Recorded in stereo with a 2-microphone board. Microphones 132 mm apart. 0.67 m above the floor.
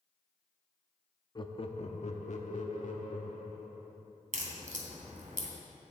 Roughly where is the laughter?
Left.